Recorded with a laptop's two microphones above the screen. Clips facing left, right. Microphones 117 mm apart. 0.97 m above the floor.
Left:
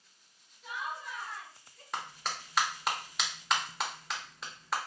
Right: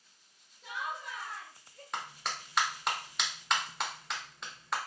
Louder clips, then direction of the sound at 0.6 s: Even; 65° right (ahead or behind).